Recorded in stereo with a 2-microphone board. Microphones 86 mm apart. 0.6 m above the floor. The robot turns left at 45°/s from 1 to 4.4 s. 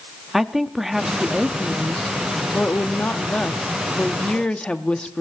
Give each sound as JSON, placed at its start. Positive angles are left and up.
{"t": 0.3, "sound": "a woman speaking", "side_deg": -5, "distance_m": 0.6}